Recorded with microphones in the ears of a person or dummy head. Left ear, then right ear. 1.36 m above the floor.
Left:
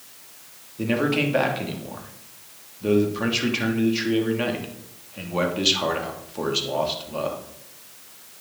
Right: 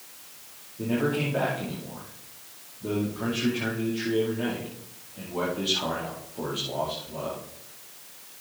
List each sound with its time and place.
0.8 s a man speaking: 75° left (ahead or behind), 2.5 m